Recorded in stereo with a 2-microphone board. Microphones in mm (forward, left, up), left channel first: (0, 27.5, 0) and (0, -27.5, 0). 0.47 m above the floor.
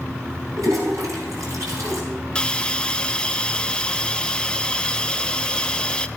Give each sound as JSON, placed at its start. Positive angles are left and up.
{"t": 0.6, "sound": "a toilet flushing", "side_deg": -75, "distance_m": 4.0}
{"t": 2.4, "sound": "a hiss", "side_deg": 15, "distance_m": 0.5}